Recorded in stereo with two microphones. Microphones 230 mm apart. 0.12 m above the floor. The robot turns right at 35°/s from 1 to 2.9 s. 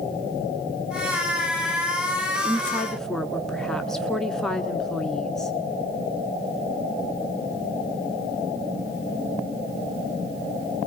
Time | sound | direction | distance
2.4 | a woman speaking | 5° left (ahead or behind) | 1.1 m